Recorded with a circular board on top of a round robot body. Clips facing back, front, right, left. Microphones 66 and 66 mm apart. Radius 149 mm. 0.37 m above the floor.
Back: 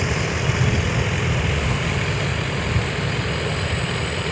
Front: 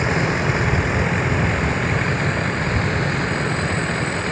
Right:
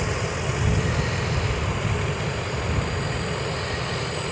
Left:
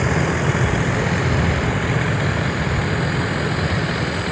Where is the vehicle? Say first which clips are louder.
Front 4 dB, left 8 dB; 55° left.